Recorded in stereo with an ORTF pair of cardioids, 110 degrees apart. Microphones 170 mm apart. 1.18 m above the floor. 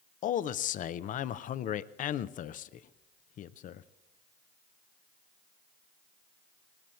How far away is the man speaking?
About 0.5 m.